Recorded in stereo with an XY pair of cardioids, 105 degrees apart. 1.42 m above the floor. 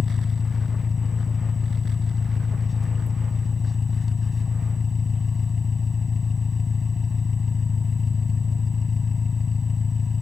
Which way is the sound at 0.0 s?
35° left.